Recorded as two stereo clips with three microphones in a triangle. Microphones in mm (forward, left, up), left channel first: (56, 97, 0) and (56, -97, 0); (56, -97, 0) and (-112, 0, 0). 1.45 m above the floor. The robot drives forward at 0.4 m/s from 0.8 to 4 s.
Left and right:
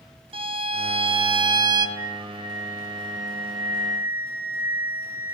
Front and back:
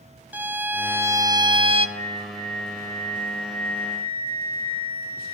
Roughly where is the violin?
Behind right.